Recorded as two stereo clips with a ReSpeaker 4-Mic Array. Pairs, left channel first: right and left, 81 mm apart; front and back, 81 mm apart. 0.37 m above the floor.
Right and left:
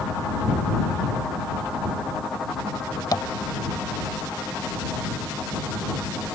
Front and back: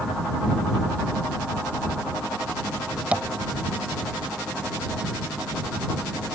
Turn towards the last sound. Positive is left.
turn(degrees=-110)